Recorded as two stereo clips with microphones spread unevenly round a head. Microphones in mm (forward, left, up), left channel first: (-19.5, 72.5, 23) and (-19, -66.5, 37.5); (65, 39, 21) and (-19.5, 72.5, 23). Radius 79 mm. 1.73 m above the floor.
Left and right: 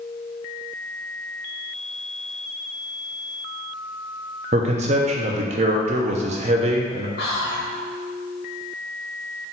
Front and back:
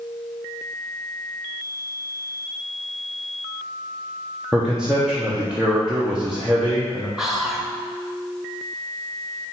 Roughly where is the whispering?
Left.